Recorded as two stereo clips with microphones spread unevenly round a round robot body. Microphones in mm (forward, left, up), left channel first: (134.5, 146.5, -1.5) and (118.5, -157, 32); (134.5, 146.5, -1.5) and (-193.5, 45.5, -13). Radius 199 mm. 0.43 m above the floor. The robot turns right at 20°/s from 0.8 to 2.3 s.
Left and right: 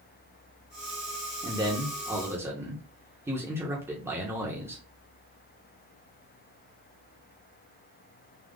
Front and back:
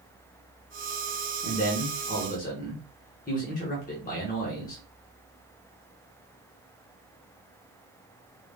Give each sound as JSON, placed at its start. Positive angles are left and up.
{"t": 1.4, "sound": "a man speaking", "azimuth_deg": -25, "distance_m": 1.1}